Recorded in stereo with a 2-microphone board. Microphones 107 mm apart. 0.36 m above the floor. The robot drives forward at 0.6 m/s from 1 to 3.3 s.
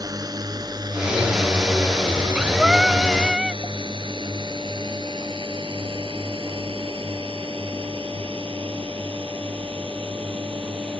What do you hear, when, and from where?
0.0 s a drone: 35° right (ahead or behind); by 11.0 s 55° right (ahead or behind)
2.6 s singing: 5° right (ahead or behind); by 3.6 s centre (ahead or behind)